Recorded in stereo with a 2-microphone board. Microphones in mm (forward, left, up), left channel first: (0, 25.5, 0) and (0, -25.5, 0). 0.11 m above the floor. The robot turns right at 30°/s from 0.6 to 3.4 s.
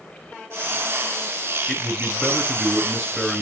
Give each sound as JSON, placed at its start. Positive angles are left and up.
{"t": 1.7, "sound": "a man speaking", "side_deg": 20, "distance_m": 1.7}